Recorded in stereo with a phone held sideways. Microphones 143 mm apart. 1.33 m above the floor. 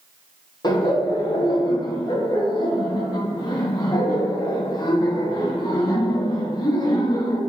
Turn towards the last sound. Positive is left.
turn(degrees=30)  # may be behind; listen again after turning